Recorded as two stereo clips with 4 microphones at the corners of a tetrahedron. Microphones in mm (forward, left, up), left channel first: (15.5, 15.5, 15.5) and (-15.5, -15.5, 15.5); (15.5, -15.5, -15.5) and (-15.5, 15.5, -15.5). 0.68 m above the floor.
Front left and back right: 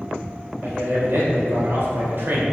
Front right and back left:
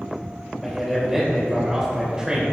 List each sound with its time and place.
0.6 s a man speaking: 140° right, 3.5 m; by 2.5 s 160° right, 3.5 m